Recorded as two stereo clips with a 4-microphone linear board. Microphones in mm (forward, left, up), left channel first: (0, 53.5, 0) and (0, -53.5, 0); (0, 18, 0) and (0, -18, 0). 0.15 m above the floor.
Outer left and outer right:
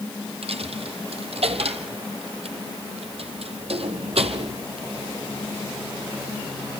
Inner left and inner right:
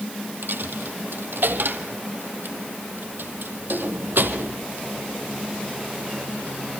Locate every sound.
0.4 s a dropped coin: 75° right (ahead or behind), 1.8 m